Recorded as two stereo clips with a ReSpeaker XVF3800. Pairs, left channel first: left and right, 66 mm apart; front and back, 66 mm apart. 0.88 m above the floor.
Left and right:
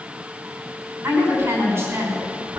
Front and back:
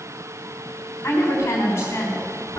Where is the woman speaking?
50° right, 6 m.